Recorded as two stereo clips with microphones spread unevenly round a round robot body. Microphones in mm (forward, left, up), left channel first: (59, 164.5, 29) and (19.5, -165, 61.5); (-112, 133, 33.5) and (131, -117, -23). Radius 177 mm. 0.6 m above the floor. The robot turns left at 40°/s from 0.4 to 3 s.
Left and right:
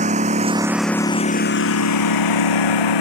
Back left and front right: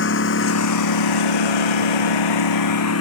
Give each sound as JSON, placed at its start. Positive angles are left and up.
{"t": 0.0, "sound": "a lawn mower", "azimuth_deg": -170}